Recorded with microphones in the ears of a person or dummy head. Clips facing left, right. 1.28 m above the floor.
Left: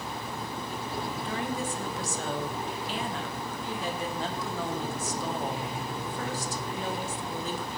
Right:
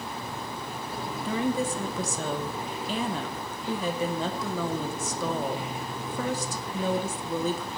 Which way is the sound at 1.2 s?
85° right.